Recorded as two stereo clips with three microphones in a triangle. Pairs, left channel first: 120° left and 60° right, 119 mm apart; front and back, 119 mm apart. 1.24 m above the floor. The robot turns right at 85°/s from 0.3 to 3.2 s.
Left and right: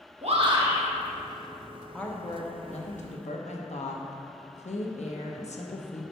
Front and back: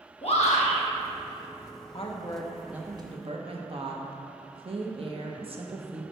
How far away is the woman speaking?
About 0.8 m.